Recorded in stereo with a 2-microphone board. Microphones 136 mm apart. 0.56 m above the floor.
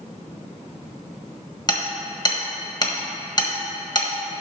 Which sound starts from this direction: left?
Hammering, at 1.7 s.